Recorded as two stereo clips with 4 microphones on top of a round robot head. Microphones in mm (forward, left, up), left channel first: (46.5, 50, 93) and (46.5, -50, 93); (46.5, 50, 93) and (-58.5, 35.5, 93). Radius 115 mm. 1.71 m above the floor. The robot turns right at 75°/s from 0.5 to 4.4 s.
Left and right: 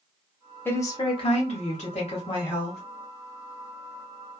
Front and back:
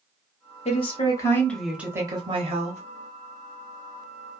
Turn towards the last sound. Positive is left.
turn(degrees=-55)